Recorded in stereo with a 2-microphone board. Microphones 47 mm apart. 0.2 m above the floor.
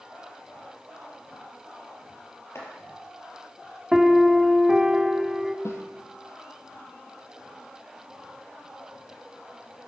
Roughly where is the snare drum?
Left.